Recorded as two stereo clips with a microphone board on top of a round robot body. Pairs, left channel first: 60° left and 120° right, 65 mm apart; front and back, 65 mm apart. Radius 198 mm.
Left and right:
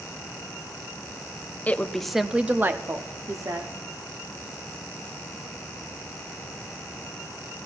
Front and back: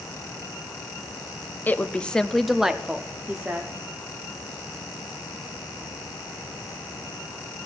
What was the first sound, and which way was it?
A woman speaking, 25° left.